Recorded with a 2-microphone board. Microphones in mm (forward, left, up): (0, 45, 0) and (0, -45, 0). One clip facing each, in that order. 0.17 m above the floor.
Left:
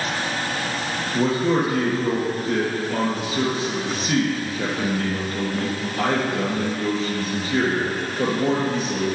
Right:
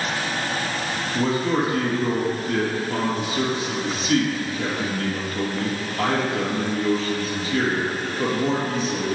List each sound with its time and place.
1.1 s a man speaking: 55° left (ahead or behind), 2.5 m